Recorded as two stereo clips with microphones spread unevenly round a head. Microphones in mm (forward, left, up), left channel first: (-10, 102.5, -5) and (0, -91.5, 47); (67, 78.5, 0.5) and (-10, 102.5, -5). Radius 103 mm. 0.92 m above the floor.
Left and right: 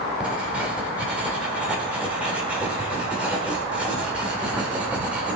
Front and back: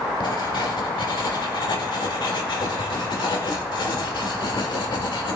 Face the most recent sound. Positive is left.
turn(degrees=-5)